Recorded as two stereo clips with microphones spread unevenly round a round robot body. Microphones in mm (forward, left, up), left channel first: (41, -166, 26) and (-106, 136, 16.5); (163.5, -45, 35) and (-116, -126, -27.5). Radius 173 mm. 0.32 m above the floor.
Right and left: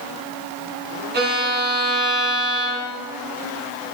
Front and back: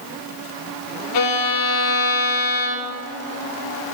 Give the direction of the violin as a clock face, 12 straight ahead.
10 o'clock.